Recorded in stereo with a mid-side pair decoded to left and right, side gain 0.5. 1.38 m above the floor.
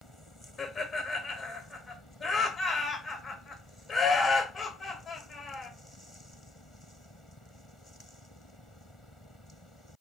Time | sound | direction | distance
0.6 | laughter | 30° left | 0.7 m